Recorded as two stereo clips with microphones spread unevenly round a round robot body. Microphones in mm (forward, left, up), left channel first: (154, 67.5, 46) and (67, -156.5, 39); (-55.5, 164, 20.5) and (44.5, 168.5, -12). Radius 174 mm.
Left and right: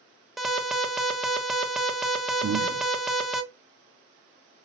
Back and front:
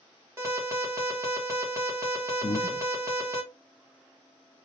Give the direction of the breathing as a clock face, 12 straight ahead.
4 o'clock.